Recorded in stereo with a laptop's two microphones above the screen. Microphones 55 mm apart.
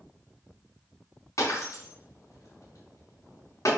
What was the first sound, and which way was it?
Breaking glass, 65° left (ahead or behind).